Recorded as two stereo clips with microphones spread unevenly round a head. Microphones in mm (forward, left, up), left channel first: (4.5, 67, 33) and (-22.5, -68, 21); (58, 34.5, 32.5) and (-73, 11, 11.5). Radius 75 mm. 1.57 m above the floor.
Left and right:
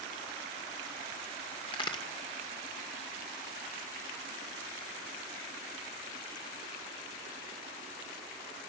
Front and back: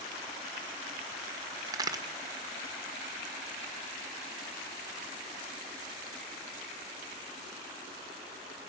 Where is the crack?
125° left, 1.8 m.